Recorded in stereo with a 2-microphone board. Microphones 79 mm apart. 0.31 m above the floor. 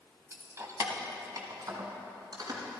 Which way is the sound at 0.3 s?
30° right (ahead or behind).